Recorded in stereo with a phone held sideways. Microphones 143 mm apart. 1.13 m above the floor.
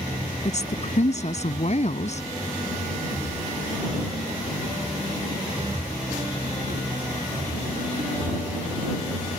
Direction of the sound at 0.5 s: 55° left (ahead or behind).